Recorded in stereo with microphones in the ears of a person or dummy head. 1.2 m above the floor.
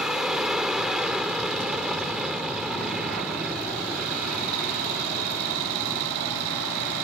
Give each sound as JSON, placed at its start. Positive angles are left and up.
{"t": 0.0, "sound": "an aircraft", "side_deg": 0}